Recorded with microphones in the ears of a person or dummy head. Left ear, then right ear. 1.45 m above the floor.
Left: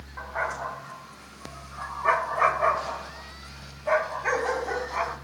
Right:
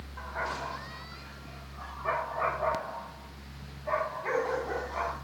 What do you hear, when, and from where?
0.2 s a dog barking: 35° left (ahead or behind), 3.5 m; by 5.2 s 30° left (ahead or behind), 5 m